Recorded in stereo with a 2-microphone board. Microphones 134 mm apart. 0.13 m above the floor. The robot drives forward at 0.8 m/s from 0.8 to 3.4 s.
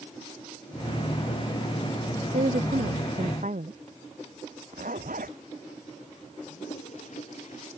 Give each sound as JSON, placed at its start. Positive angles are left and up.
{"t": 2.3, "sound": "a woman speaking", "side_deg": -65}
{"t": 4.7, "sound": "a zipper", "side_deg": -75}
{"t": 6.5, "sound": "a toilet flushing", "side_deg": 55}